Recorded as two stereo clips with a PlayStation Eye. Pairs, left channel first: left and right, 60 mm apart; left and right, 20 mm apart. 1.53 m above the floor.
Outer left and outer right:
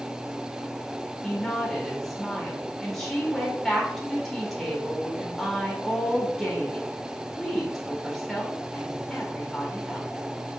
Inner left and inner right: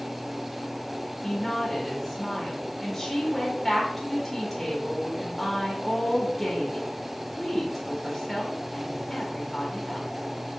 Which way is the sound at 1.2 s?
5° left (ahead or behind).